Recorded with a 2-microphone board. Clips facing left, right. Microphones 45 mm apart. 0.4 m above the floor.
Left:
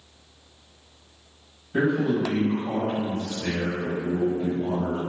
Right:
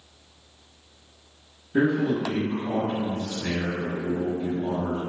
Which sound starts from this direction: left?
A man speaking, at 1.7 s.